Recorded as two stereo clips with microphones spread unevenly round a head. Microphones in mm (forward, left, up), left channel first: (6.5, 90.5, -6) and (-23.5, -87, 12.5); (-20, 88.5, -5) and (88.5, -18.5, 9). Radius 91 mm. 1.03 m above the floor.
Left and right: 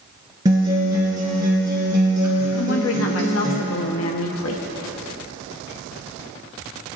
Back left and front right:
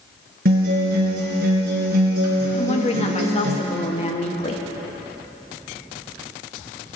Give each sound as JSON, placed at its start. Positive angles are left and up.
{"t": 0.5, "sound": "a guitar", "azimuth_deg": -30, "distance_m": 3.0}
{"t": 2.6, "sound": "a woman speaking", "azimuth_deg": 90, "distance_m": 1.2}